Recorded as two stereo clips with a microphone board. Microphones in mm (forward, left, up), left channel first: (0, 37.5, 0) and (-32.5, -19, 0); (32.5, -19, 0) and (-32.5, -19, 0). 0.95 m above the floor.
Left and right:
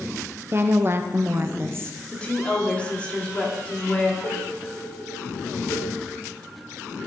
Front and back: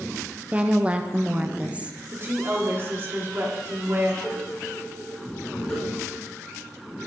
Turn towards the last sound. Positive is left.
turn(degrees=70)